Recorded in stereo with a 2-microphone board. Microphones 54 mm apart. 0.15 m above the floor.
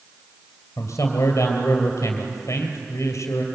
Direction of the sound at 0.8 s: 65° left (ahead or behind).